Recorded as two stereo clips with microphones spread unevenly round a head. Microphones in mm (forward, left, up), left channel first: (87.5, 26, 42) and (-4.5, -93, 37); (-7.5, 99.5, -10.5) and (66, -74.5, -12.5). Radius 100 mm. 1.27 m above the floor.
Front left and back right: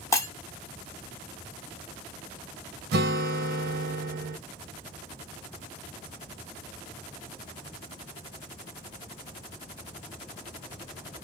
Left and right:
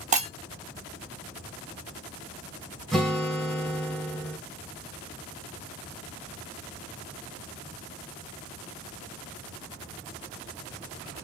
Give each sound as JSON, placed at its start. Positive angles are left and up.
{"t": 0.1, "sound": "breaking glass", "azimuth_deg": -15, "distance_m": 0.9}
{"t": 2.9, "sound": "a guitar", "azimuth_deg": -160, "distance_m": 0.7}